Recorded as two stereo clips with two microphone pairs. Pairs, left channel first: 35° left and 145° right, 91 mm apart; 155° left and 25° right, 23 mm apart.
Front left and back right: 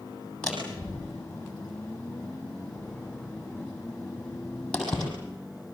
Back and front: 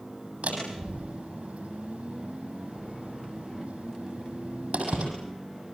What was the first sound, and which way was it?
A door slam, 45° right.